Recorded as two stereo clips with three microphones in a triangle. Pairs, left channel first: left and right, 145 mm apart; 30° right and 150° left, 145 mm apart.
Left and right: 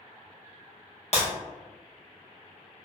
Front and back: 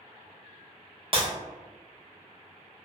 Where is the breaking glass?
110° left, 0.9 m.